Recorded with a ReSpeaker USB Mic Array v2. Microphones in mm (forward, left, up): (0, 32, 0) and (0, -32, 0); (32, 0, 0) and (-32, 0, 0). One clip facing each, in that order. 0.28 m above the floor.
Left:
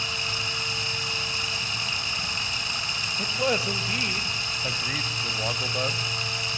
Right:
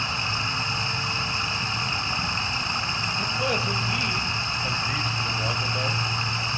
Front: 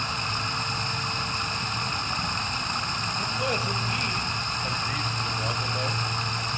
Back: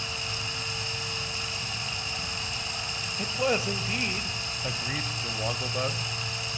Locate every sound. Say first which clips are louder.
0.0 s running water: right 3 dB, front 6 dB; 30° right, 2 m
3.2 s a man speaking: left 2 dB, back 3 dB; 140° left, 0.9 m